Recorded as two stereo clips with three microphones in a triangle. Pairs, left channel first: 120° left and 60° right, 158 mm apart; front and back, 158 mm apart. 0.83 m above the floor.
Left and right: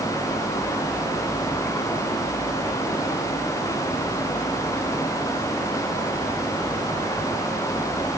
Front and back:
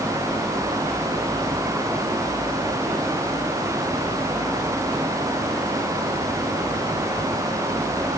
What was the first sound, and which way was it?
Only background noise.